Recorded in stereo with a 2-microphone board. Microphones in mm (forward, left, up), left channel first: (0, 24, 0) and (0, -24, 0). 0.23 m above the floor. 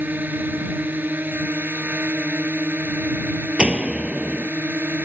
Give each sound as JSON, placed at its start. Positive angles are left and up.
{"t": 0.0, "sound": "a drone", "side_deg": -45}
{"t": 3.6, "sound": "a door slam", "side_deg": -20}